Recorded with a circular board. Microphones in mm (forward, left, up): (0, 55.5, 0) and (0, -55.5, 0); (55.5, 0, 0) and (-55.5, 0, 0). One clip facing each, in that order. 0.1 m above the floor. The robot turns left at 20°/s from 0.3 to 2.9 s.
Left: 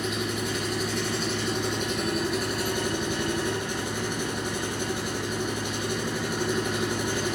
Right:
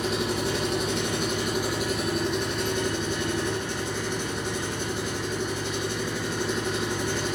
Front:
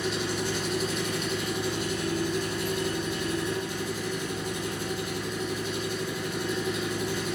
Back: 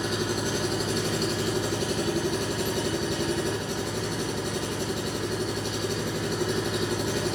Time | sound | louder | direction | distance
0.0 | an engine running | right 3 dB, back 2 dB | 145° right | 5 m